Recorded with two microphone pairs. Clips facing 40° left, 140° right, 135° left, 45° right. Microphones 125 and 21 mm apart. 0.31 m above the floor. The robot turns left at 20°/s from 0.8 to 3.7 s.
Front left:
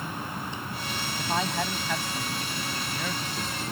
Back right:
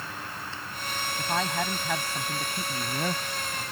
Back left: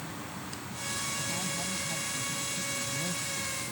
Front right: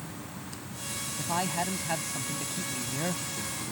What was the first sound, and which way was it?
An insect, 70° left.